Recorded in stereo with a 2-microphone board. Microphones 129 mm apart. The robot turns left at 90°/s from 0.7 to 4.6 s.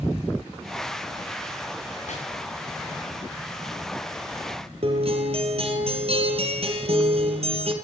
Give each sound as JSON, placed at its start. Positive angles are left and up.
{"t": 2.1, "sound": "chopping", "side_deg": 75, "distance_m": 5.5}
{"t": 4.8, "sound": "a guitar", "side_deg": -50, "distance_m": 2.5}